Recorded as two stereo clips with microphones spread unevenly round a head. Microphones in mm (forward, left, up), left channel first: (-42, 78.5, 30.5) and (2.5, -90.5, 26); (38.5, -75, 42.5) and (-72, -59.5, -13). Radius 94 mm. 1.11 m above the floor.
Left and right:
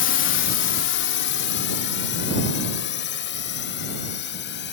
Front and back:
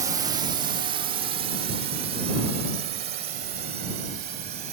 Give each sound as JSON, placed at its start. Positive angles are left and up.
{"t": 0.0, "sound": "a drone", "azimuth_deg": 115}